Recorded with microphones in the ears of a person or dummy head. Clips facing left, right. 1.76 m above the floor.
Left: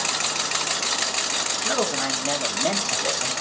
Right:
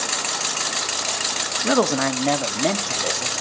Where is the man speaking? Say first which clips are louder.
Right 7 dB; 70° right (ahead or behind), 1.0 m; by 3.3 s 55° right (ahead or behind), 1.7 m.